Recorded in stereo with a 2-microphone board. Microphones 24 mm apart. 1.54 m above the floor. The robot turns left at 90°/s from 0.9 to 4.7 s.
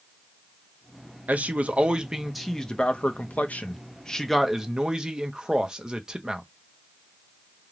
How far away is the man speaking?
About 0.6 m.